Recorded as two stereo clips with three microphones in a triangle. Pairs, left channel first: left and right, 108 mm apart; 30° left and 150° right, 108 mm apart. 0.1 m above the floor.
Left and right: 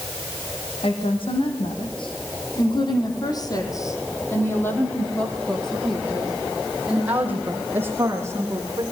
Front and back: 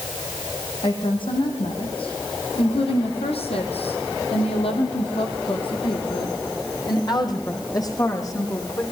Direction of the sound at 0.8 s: 65° left.